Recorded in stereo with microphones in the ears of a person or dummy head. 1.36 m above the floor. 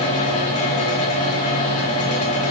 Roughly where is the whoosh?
I don't hear a whoosh.